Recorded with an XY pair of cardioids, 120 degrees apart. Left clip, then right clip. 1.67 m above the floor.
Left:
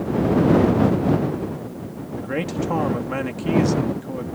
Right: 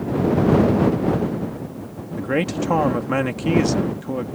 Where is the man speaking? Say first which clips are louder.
Right 4 dB; 30° right.